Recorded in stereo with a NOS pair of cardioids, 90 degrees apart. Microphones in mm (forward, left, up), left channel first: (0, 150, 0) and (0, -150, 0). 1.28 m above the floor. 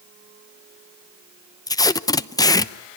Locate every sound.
1.7 s tape being pulled: 10° left, 0.8 m